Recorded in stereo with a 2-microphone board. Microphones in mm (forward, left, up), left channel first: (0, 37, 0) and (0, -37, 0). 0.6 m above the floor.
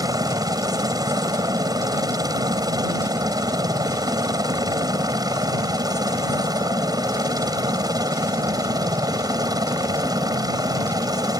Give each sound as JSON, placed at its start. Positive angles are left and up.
{"t": 0.0, "sound": "a helicopter", "side_deg": -60}